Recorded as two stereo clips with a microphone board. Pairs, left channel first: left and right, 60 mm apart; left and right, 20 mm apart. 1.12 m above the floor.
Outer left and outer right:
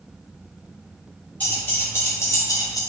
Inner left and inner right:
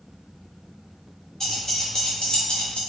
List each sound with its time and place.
1.4 s keys jangling: 25° left (ahead or behind), 1.2 m; by 2.8 s 70° left (ahead or behind), 0.6 m